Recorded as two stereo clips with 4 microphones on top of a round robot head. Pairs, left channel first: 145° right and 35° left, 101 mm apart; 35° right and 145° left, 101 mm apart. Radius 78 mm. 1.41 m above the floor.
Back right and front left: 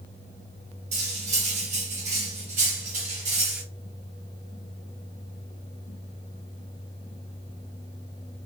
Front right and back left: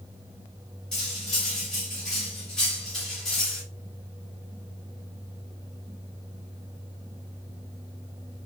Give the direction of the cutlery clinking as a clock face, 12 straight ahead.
10 o'clock.